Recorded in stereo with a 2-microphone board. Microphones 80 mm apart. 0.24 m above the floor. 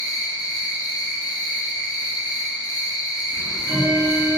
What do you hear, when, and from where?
0.0 s an insect: 30° left (ahead or behind), 1.3 m
3.3 s ticking: 30° right (ahead or behind), 1.6 m